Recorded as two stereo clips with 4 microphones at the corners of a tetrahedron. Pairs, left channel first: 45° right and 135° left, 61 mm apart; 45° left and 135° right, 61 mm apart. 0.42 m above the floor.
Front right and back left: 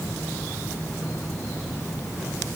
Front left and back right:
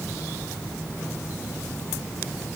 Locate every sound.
Only background noise.